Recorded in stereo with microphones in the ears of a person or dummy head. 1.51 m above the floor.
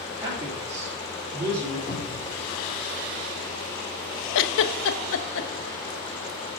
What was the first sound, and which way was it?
A man speaking, 20° right (ahead or behind).